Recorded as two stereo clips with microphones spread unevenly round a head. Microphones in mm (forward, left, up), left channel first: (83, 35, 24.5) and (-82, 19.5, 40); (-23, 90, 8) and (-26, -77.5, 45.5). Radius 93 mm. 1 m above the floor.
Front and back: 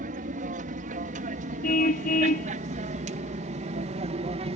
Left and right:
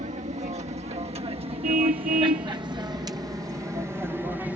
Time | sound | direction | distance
0.0 | an aircraft | 140° right | ?
1.6 | a car horn | 45° right | ?